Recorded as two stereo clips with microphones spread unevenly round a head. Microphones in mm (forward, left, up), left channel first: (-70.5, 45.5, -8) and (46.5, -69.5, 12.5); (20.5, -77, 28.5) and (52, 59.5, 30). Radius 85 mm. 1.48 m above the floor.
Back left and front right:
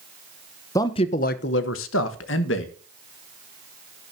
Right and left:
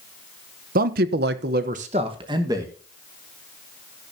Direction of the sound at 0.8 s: 60° left.